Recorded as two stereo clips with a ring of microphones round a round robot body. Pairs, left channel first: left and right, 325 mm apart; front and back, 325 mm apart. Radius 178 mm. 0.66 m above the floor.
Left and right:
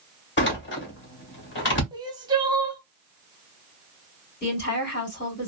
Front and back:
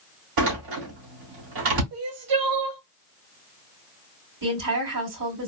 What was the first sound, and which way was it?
A door slam, 145° left.